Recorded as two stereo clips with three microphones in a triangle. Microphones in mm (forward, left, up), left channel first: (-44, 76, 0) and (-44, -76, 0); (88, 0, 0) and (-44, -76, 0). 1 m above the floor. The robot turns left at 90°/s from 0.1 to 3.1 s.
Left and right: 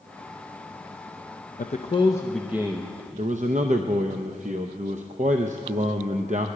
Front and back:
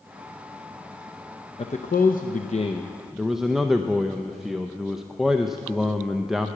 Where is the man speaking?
75° left, 0.6 m; by 6.5 s 60° right, 0.6 m.